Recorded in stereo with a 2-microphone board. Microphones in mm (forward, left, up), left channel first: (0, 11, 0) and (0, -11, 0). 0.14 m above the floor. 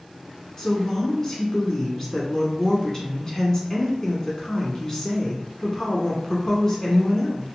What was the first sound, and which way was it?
A woman speaking, 20° left (ahead or behind).